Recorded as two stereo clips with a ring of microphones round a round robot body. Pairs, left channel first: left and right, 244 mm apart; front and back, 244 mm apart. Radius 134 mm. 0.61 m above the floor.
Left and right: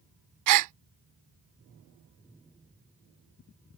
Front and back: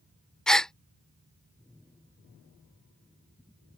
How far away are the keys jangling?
No keys jangling in this recording.